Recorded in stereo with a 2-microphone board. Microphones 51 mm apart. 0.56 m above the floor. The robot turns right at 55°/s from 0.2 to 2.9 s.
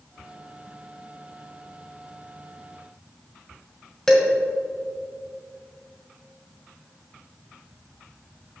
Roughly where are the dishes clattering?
Centre.